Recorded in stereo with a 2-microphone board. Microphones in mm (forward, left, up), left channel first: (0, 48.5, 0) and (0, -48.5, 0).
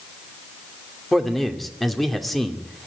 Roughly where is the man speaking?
Centre.